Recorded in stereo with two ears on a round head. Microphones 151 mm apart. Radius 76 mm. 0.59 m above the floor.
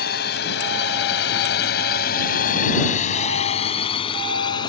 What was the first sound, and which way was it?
A drone, 65° left (ahead or behind).